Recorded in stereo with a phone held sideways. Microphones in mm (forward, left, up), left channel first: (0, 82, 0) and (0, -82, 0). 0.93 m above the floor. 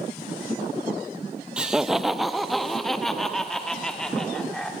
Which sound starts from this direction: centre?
Laughter, at 1.6 s.